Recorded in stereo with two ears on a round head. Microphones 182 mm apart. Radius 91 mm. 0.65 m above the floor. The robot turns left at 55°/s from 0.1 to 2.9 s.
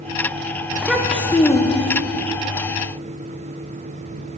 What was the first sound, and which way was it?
A child speaking, 165° right.